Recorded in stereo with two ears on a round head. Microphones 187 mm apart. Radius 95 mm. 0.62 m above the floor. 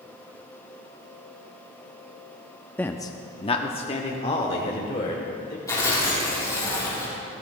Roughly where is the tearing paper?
Centre.